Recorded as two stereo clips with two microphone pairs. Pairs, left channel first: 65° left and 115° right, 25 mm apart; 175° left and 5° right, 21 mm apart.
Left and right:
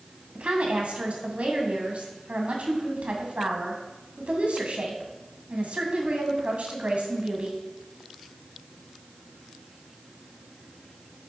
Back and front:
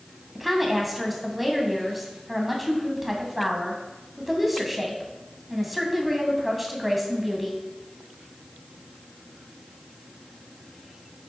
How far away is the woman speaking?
About 2.5 m.